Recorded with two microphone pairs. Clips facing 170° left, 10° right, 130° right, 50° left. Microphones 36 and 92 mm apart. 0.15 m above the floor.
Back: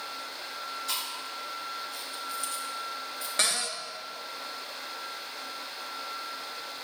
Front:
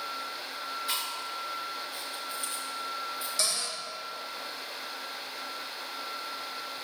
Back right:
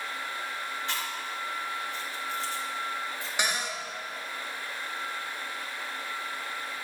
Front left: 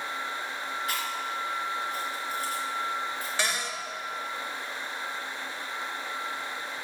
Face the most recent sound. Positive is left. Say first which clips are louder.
# back 6 dB, back right 2 dB
turn(degrees=160)